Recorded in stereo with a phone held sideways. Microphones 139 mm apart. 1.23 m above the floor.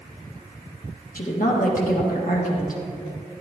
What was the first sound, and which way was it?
A woman speaking, 75° left (ahead or behind).